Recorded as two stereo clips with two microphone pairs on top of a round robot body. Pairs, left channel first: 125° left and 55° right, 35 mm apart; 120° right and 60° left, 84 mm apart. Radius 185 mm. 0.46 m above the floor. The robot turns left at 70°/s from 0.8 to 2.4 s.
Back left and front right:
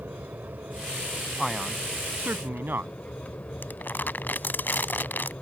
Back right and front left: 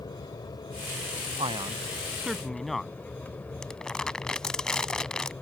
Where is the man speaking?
40° left; by 2.9 s 30° right.